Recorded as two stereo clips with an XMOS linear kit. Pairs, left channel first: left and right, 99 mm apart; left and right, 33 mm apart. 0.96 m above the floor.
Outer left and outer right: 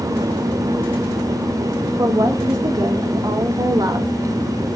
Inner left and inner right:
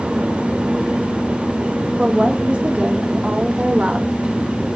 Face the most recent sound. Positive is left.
turn(degrees=-40)  # may be behind; listen again after turning